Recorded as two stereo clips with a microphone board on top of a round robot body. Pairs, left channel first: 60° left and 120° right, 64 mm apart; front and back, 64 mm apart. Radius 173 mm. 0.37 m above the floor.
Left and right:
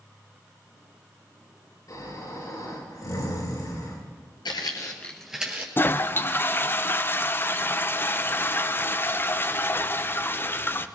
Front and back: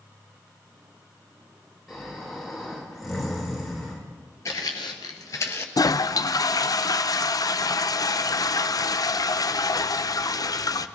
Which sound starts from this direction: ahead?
A toilet flushing, at 5.8 s.